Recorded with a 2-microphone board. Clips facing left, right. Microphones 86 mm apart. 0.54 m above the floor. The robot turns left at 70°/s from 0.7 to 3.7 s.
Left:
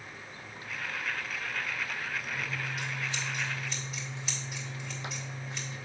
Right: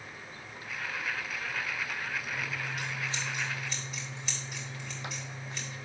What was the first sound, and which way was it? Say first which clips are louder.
Scissors: even; 85° right.